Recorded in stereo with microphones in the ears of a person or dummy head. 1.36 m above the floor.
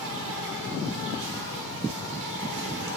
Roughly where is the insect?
Right.